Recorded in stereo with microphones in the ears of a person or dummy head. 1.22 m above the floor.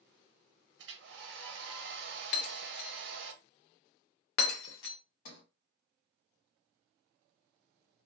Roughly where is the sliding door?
Left.